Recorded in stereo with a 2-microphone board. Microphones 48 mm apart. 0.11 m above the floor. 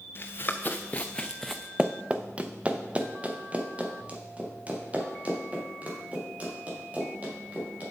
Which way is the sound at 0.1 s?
50° left (ahead or behind).